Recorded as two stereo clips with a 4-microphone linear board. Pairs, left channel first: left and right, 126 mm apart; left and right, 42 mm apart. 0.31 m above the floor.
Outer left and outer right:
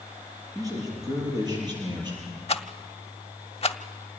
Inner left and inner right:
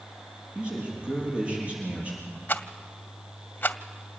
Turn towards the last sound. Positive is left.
turn(degrees=50)  # may be behind; listen again after turning